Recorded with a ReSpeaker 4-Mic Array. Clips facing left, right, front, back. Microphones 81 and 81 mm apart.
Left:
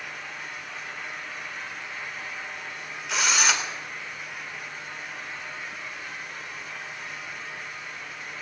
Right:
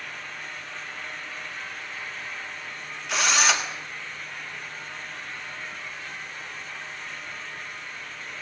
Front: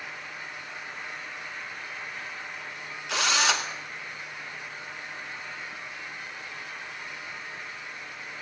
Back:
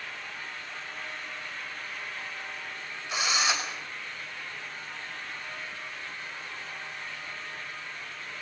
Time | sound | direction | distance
3.1 | a drill | straight ahead | 3 m